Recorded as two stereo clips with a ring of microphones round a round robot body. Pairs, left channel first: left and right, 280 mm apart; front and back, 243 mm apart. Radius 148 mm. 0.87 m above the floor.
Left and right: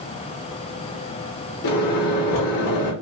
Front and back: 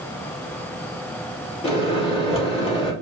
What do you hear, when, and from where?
1.6 s a microwave: 65° left, 2 m